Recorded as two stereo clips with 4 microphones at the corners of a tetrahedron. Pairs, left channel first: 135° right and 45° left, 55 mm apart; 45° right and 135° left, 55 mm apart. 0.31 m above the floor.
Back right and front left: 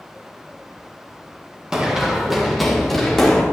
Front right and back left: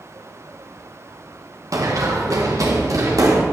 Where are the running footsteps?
125° left, 1.9 m; by 3.4 s 145° left, 2.5 m.